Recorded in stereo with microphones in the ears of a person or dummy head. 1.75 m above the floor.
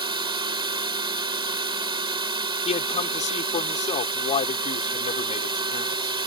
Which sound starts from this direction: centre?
A drone, at 0.0 s.